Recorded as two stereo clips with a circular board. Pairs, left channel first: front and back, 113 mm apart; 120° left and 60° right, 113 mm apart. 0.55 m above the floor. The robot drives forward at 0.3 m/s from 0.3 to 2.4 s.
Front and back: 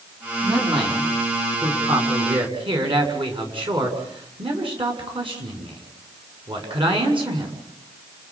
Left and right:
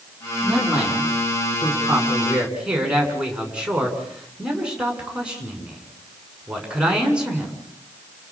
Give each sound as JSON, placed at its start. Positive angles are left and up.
{"t": 0.4, "sound": "a man speaking", "azimuth_deg": -140, "distance_m": 6.5}